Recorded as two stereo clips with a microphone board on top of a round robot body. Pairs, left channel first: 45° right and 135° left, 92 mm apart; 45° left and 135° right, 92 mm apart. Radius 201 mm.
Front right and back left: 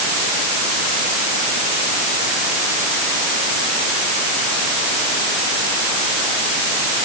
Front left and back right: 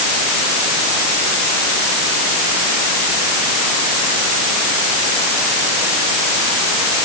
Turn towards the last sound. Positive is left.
No sound to turn to.